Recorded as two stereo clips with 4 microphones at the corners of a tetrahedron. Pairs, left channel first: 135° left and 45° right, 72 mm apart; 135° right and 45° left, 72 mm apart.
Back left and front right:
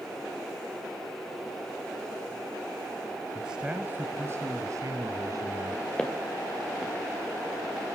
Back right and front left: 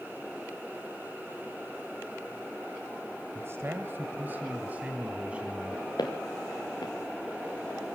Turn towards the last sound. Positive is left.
turn(degrees=-150)